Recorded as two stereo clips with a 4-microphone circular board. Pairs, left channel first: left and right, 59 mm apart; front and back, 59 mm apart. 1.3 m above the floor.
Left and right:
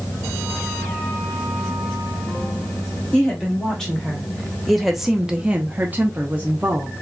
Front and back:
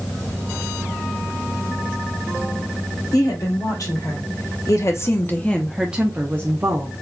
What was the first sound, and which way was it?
A woman speaking, 10° left.